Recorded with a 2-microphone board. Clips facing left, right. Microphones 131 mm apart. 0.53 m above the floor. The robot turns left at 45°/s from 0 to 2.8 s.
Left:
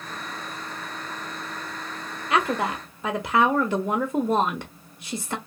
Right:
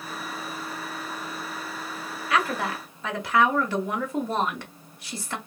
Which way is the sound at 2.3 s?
30° left (ahead or behind).